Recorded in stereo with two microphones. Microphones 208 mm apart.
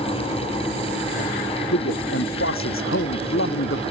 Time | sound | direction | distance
1.7 | a man speaking | 75° left (ahead or behind) | ?